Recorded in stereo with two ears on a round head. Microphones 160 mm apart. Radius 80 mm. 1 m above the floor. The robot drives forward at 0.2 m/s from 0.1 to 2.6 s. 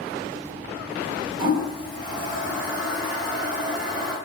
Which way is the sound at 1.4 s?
30° right (ahead or behind).